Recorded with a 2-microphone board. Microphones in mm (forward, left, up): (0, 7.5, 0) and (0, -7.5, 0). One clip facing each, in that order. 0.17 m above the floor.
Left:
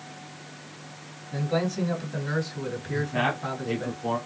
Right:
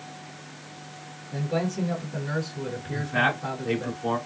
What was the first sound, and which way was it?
A man speaking, 50° left (ahead or behind).